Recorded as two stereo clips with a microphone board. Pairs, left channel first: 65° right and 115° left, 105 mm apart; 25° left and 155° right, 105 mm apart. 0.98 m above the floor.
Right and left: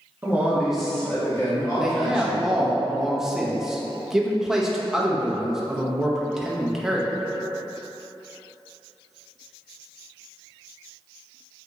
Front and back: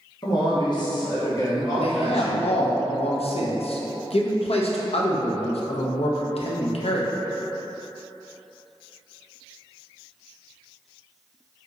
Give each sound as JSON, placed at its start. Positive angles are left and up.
{"t": 0.2, "sound": "a man speaking", "azimuth_deg": 50, "distance_m": 1.1}
{"t": 1.8, "sound": "a man speaking", "azimuth_deg": 25, "distance_m": 0.6}